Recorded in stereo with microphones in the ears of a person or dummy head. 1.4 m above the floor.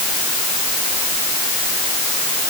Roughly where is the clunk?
No clunk in this recording.